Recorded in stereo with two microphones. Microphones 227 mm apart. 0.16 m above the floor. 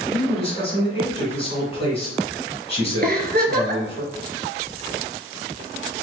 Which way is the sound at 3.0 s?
45° right (ahead or behind).